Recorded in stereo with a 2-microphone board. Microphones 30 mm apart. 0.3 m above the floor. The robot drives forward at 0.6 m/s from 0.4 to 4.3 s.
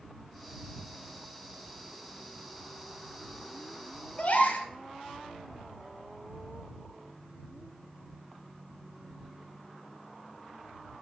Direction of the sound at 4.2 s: 50° left (ahead or behind).